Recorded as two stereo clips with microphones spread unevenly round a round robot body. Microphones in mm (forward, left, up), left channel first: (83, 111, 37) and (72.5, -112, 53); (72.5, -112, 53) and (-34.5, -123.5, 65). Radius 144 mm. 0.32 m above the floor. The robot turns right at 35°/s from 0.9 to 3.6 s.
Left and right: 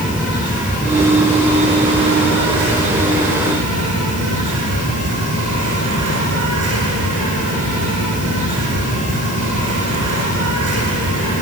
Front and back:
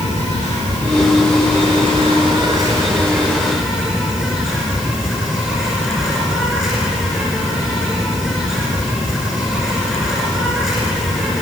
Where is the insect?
175° left, 9.5 m; by 11.4 s 90° right, 9.5 m.